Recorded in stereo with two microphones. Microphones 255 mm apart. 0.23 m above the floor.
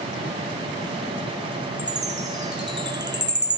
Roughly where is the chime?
Right.